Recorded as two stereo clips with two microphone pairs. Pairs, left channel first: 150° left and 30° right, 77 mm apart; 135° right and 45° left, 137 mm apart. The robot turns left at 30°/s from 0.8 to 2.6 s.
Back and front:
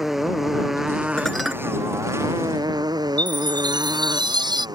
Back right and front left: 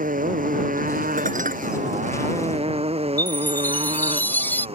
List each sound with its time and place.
0.0 s a motorcycle: 55° left; by 4.8 s straight ahead
1.2 s dishes clattering: 65° left; by 1.6 s 55° left
3.2 s a chime: 60° right